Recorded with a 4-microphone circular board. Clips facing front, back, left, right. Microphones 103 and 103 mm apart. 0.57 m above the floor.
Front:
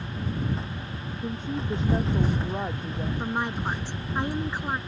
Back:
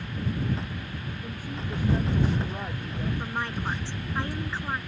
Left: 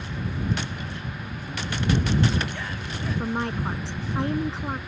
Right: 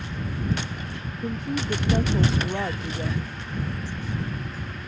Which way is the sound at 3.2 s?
75° left.